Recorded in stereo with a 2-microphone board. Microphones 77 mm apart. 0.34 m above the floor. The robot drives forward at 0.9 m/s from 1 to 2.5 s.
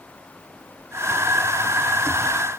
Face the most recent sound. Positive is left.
No sound to turn to.